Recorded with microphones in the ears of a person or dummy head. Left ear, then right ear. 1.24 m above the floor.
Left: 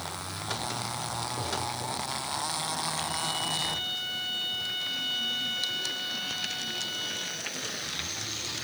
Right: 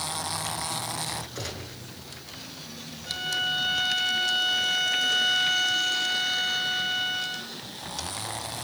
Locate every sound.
1.4 s a gunshot: 55° right (ahead or behind), 9 m
3.1 s a violin: 40° right (ahead or behind), 4 m